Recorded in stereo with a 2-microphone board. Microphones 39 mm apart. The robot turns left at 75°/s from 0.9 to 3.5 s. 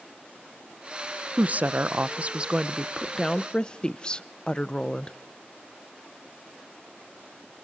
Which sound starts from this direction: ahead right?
A woman speaking, at 1.4 s.